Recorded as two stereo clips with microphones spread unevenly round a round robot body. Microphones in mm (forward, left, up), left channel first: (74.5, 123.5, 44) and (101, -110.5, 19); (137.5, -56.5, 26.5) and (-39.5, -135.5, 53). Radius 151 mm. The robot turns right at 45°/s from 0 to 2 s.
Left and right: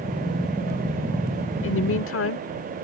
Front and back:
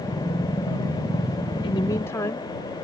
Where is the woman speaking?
75° left; by 2.5 s 95° left.